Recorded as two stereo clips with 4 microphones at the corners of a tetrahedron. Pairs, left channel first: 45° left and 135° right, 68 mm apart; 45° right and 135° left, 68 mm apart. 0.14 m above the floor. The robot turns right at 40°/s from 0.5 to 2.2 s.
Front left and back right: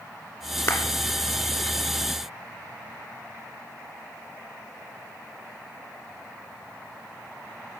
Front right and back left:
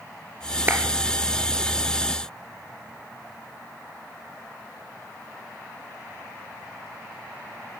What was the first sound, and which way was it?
A clap, 85° left.